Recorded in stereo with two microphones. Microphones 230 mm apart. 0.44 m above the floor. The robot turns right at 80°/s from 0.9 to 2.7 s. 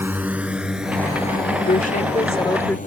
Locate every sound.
0.0 s a drone: 10° right (ahead or behind); by 2.9 s 35° left (ahead or behind)
1.7 s a woman speaking: 80° left; by 2.8 s 165° left